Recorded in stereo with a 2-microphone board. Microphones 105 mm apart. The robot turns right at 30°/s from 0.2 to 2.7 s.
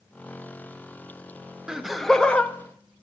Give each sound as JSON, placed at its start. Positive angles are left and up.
{"t": 1.7, "sound": "laughter", "side_deg": -10, "distance_m": 0.7}